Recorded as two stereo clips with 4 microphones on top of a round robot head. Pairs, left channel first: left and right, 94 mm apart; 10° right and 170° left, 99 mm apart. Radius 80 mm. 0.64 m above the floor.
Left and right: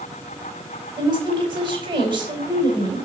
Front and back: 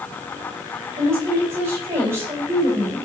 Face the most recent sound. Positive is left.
turn(degrees=-120)